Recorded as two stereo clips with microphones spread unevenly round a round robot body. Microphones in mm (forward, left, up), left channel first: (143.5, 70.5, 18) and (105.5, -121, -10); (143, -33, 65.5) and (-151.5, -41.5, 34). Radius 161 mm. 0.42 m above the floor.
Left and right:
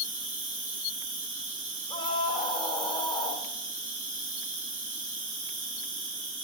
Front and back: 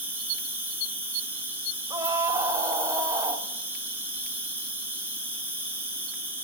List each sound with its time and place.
0.0 s an insect: 95° right, 4.5 m
1.9 s a scream: 130° left, 0.8 m